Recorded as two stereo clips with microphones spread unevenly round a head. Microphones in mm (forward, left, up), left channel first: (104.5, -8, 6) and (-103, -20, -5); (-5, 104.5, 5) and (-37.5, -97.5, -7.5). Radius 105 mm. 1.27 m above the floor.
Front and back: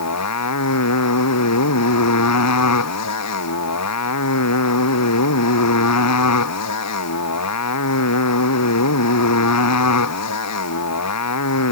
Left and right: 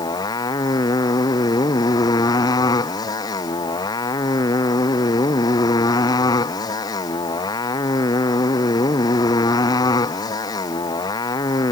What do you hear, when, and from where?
0.0 s a motorcycle: 10° left